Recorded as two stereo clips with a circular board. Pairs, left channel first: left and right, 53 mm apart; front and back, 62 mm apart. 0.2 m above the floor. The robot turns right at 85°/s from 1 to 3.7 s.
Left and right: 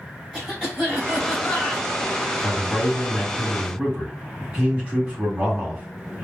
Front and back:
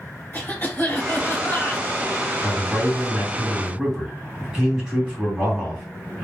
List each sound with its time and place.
0.3 s a cough: 10° right, 2.0 m; by 1.9 s 60° left, 2.0 m
2.4 s a man speaking: 145° left, 1.6 m; by 6.2 s 105° right, 1.6 m